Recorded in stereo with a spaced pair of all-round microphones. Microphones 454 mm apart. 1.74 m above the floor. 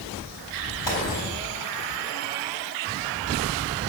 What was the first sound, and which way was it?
A gunshot, 75° left (ahead or behind).